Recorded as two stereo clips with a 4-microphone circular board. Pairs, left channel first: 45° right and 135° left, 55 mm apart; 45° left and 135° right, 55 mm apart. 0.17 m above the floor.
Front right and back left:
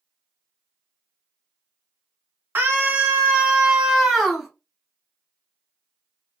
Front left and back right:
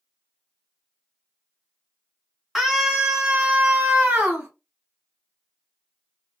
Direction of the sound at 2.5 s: 145° left.